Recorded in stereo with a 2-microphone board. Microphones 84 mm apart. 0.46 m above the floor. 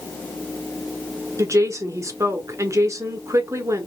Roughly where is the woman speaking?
Right.